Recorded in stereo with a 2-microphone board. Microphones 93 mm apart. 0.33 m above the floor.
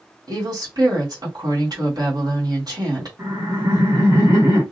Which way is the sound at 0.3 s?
45° right (ahead or behind).